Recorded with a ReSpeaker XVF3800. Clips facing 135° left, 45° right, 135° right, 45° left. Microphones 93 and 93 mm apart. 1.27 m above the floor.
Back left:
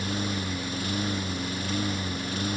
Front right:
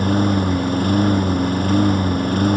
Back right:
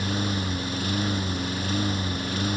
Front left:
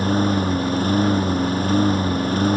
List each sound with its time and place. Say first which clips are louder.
0.0 s a lawn mower: front right 13 dB, front left 9 dB; 5° right